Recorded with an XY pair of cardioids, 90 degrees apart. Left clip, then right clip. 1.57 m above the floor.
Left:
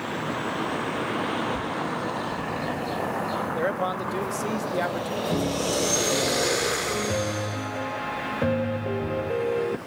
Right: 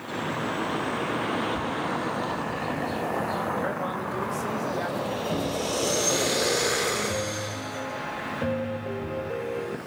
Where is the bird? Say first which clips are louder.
Even; 50° left, 10 m.